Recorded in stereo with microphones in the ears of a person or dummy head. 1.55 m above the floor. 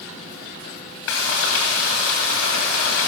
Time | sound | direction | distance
1.1 | frying | 85° left | 2.5 m